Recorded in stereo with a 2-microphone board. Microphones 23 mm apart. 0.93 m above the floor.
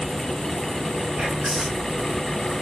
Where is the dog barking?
I don't hear a dog barking.